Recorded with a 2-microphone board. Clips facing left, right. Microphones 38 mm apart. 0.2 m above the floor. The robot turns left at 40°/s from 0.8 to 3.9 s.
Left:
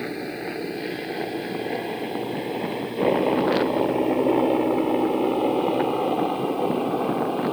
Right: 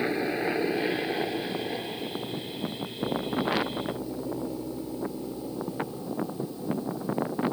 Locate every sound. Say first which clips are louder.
0.0 s a helicopter: right 2 dB; 10° right (ahead or behind); by 7.5 s 70° left (ahead or behind)